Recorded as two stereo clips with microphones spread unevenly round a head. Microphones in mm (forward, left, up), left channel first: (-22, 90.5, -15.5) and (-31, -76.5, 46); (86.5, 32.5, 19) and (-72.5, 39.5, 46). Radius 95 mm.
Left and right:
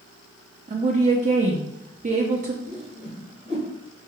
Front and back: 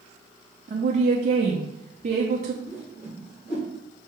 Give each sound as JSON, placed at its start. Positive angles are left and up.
{"t": 0.7, "sound": "a woman speaking", "azimuth_deg": -145, "distance_m": 0.6}
{"t": 2.6, "sound": "a whoosh", "azimuth_deg": -50, "distance_m": 2.5}